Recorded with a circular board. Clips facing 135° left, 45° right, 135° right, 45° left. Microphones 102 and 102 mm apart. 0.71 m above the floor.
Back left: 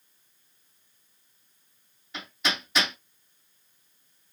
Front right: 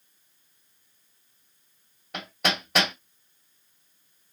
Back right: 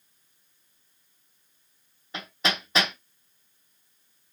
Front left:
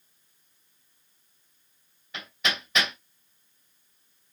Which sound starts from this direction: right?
Hammering, at 2.1 s.